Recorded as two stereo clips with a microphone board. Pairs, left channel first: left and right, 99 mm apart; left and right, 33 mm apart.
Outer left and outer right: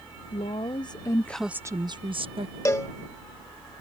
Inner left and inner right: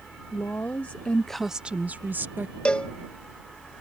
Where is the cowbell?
30° left (ahead or behind).